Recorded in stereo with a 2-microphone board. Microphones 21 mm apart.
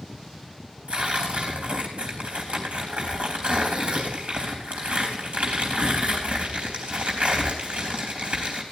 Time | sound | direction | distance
0.9 | tearing paper | 85° right | 3.5 m